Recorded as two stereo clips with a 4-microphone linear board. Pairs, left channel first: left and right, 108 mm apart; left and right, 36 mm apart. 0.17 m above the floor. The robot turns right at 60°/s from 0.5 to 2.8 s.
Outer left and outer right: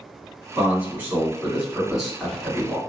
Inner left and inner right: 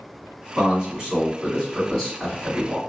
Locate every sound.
0.6 s a man speaking: 25° right (ahead or behind), 1.6 m; by 2.8 s 15° left (ahead or behind), 1.6 m